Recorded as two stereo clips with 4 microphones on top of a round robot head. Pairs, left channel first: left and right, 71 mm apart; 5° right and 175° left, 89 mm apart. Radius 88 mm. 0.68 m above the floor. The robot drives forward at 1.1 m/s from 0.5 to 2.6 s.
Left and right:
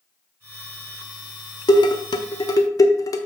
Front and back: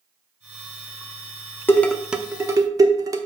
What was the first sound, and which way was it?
Dishes clattering, 65° left.